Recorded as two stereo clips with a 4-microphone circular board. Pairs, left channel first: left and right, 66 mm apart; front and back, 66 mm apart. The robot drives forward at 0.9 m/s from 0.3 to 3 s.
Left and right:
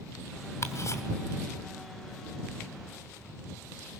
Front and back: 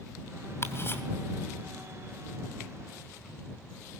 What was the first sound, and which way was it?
Ticking, 45° left.